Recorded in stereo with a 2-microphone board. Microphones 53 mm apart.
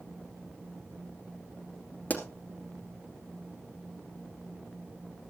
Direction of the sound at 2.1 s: 35° left (ahead or behind).